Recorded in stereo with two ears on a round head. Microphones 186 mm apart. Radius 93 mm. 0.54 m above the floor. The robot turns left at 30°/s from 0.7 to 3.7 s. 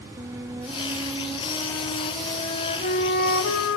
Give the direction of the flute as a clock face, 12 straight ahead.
5 o'clock.